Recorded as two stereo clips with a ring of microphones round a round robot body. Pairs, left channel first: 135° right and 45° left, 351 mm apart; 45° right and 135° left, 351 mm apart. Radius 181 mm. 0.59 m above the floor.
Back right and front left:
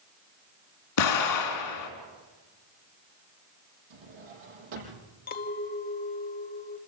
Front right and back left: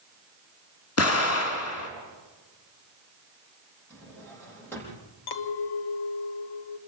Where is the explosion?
95° right, 3.5 m.